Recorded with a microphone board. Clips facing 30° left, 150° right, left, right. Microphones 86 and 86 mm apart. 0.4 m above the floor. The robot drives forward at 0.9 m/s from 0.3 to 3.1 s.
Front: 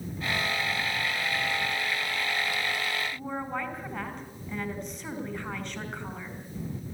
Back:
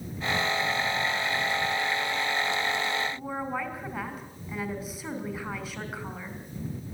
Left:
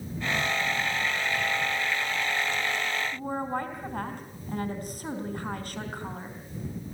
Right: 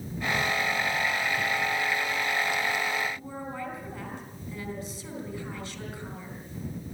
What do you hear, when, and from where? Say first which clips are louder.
3.1 s a woman speaking: back 1 dB, left 6 dB; 125° left, 4 m